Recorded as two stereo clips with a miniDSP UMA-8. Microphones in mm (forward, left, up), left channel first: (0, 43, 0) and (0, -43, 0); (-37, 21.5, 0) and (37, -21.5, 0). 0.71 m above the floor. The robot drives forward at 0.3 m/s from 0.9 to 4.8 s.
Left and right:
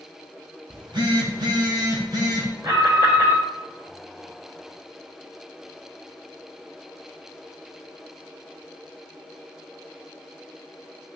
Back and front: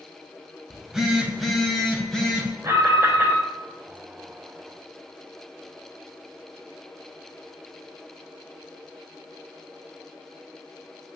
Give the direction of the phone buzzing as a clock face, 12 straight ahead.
4 o'clock.